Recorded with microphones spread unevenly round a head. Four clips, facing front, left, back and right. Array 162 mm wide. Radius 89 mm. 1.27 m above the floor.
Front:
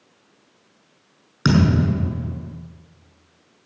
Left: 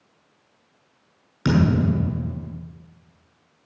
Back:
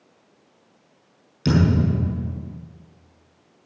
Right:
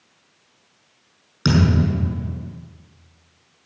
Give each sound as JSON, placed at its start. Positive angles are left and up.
{"t": 1.4, "sound": "a thud", "azimuth_deg": 0, "distance_m": 7.5}